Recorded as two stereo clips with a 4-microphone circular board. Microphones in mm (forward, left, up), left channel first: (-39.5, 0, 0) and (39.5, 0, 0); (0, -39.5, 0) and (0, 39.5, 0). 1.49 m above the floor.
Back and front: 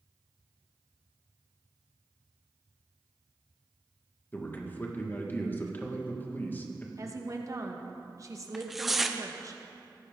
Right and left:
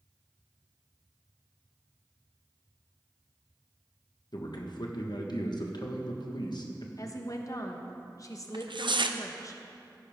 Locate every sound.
4.3 s a man speaking: 115° right, 1.5 m
7.0 s a woman speaking: 45° right, 1.2 m
8.5 s tearing paper: 85° left, 0.6 m